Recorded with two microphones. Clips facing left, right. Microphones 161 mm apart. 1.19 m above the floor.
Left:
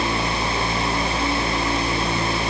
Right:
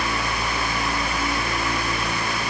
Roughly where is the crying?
No crying in this recording.